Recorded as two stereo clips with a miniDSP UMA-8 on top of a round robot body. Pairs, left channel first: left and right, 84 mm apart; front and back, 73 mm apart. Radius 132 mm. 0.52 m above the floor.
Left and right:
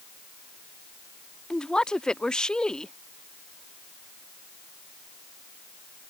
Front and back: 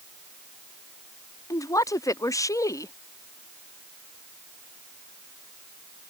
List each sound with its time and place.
1.5 s a woman speaking: 10° left